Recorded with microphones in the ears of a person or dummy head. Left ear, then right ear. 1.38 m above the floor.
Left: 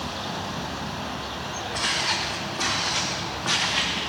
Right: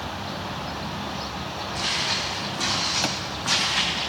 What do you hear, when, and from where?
1.7 s footsteps: 25° left (ahead or behind), 3.5 m; by 4.1 s 5° right (ahead or behind), 3.5 m